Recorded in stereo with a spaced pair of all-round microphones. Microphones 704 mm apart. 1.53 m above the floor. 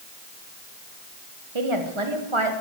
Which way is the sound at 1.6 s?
45° right (ahead or behind).